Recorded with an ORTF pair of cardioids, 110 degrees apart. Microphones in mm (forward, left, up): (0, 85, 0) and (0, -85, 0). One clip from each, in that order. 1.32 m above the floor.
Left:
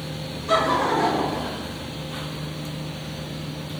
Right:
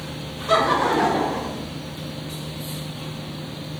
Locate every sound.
0.5 s laughter: 10° right, 0.6 m; by 1.6 s 25° right, 1.2 m